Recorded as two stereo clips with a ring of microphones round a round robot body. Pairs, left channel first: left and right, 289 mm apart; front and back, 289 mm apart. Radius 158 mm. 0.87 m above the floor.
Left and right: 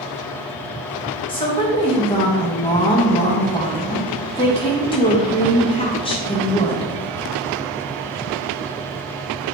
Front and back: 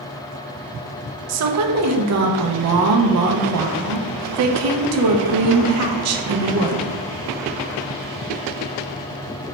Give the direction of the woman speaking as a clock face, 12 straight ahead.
7 o'clock.